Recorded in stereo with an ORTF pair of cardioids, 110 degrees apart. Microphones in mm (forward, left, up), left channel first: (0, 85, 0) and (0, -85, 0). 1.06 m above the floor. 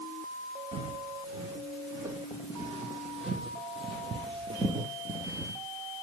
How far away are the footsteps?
About 4 m.